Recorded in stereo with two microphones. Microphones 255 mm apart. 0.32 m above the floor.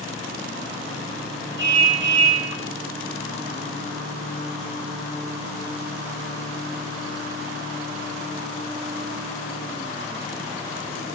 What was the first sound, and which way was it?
A car horn, 45° right (ahead or behind).